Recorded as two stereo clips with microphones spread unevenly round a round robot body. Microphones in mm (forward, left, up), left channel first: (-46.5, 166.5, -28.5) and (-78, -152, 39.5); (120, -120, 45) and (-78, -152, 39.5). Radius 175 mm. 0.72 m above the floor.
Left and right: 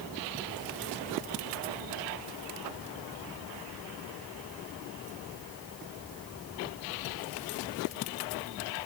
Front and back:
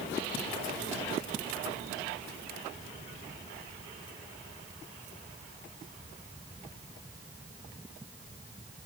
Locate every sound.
Only background noise.